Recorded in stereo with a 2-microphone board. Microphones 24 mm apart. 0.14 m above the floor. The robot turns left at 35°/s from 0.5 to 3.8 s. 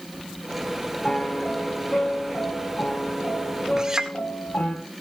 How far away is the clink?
About 1.7 m.